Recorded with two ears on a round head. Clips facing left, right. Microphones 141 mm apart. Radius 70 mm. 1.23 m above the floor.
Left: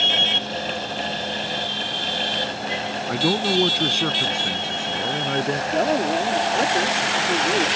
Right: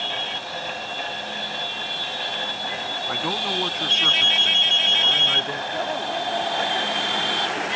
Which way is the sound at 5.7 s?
60° left (ahead or behind).